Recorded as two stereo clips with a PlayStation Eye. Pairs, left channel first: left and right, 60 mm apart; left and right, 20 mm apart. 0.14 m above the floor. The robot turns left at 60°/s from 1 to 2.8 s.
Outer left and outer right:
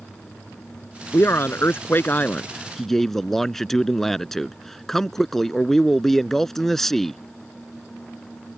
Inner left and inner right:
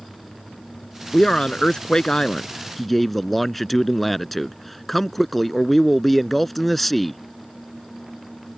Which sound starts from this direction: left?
A man speaking, at 1.1 s.